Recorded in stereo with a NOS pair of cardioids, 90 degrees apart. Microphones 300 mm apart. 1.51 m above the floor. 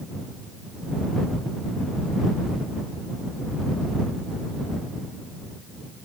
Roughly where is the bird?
I don't hear a bird.